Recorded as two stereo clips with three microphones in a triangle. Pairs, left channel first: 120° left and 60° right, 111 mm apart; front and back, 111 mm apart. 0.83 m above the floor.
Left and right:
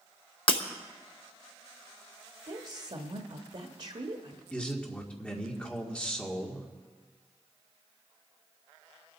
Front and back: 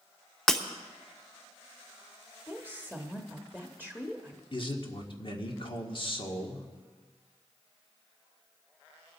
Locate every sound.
0.5 s breaking glass: 85° left, 0.9 m
2.5 s a woman speaking: 75° right, 1.1 m
4.5 s a man speaking: 40° left, 1.7 m